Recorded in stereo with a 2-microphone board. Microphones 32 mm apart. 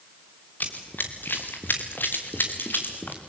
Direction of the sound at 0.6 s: 60° left (ahead or behind).